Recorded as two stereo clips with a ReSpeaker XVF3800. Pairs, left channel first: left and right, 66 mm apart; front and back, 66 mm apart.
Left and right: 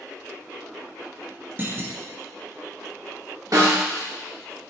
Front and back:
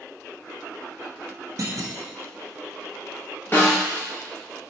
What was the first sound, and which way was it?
A clunk, 145° right.